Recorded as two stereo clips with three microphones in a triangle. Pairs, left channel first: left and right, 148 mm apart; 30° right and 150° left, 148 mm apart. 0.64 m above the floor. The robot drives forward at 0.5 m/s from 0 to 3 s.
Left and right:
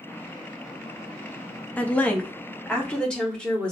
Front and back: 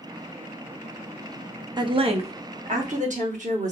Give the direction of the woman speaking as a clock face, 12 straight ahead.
7 o'clock.